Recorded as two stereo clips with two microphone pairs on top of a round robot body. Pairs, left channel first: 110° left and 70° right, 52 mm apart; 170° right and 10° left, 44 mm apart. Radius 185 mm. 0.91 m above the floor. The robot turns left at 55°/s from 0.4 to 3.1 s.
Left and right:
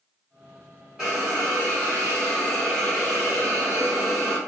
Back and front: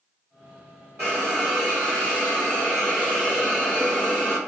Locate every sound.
1.0 s a hiss: straight ahead, 0.5 m; by 4.4 s 115° right, 0.5 m